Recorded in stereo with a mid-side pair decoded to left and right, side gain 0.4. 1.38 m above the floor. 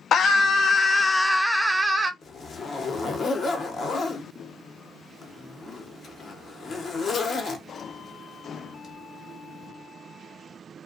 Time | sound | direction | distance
0.1 | a scream | 60° left | 0.8 m
2.2 | a zipper | 50° left | 0.9 m